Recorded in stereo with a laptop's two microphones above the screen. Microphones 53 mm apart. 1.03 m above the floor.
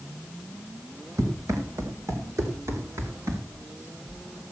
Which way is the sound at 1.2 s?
75° right (ahead or behind).